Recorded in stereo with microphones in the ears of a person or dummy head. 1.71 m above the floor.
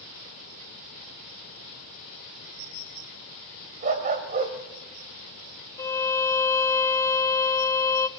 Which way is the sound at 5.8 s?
15° left (ahead or behind).